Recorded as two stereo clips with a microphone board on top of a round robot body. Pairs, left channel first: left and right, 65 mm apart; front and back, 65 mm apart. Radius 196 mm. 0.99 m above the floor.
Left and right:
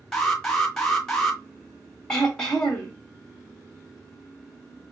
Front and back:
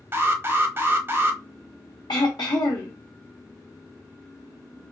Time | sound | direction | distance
0.1 | an alarm | 170° left | 1.7 m
2.1 | throat clearing | 10° left | 0.5 m